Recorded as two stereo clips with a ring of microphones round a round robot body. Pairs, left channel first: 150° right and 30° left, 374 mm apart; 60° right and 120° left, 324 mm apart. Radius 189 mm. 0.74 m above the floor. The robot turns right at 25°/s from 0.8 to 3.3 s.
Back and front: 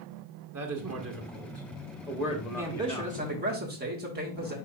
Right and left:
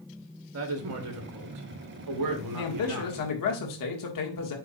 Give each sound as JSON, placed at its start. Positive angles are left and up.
{"t": 0.5, "sound": "a woman speaking", "azimuth_deg": 80, "distance_m": 1.2}
{"t": 2.5, "sound": "a man speaking", "azimuth_deg": -55, "distance_m": 1.9}